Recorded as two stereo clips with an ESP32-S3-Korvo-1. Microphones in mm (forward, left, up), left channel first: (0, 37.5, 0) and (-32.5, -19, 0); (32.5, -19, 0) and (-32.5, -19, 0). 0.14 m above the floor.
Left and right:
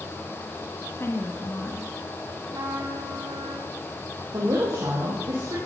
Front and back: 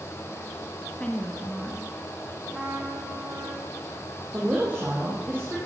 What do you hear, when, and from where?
0.9 s a woman speaking: 65° left, 1.5 m
2.5 s a trumpet: 110° right, 4 m
4.3 s a woman speaking: 120° right, 4 m